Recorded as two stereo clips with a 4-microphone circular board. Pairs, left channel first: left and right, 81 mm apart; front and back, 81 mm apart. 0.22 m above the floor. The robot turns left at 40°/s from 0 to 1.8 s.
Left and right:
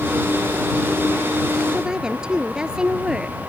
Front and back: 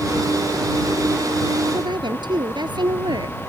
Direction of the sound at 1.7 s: 165° right.